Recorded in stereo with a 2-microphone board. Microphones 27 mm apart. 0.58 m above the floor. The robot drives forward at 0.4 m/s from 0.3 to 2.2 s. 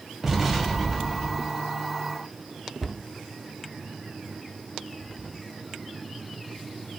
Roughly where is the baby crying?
I don't hear a baby crying.